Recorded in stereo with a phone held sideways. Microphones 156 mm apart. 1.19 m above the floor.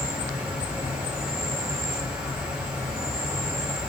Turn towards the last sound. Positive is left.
turn(degrees=-10)  # may be behind; listen again after turning